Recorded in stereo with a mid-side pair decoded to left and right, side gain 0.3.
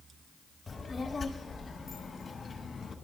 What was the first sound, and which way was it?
A child speaking, 35° left.